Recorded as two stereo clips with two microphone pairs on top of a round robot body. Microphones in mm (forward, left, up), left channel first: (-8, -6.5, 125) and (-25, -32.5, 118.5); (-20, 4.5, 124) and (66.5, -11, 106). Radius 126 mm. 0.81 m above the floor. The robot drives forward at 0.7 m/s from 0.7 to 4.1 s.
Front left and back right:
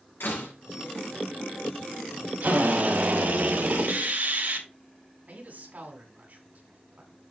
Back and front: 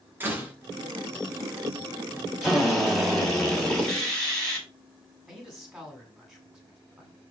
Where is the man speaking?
95° right, 7.5 m.